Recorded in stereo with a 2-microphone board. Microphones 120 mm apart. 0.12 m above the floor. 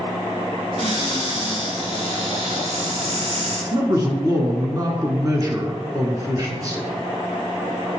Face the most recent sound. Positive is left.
turn(degrees=-30)  # may be behind; listen again after turning